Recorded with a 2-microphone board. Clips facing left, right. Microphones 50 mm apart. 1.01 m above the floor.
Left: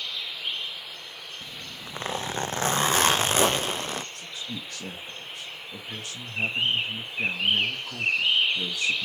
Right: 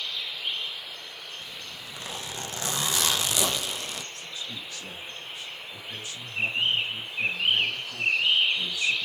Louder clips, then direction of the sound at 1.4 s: Left 1 dB; 40° left (ahead or behind).